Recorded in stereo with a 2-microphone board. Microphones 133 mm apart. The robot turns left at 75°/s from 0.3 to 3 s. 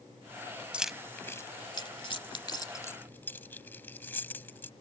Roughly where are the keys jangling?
Centre.